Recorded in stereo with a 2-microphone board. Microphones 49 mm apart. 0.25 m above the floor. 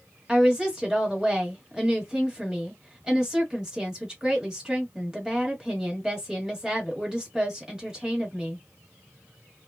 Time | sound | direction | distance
0.3 | a woman speaking | 15° right (ahead or behind) | 1.2 m